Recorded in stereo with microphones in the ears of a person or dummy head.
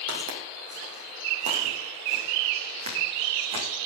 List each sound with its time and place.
0.1 s footsteps: 40° right (ahead or behind), 4 m; by 3.7 s 25° right (ahead or behind), 6 m